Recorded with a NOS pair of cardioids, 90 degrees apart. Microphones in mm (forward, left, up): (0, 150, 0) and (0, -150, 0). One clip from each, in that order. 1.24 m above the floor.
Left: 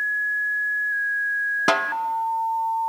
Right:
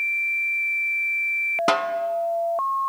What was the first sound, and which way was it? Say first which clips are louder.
A snare drum: left 2 dB; 5° left.